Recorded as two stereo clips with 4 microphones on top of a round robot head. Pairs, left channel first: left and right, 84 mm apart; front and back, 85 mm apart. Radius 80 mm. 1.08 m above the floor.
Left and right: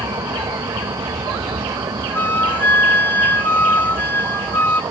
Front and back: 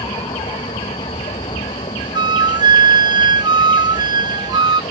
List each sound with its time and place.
0.0 s a vehicle: 40° right
2.1 s a flute: 155° left